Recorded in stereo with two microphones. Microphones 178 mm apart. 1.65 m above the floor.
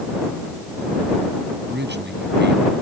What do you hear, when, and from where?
1.7 s a man speaking: 80° right; by 2.7 s 75° right (ahead or behind)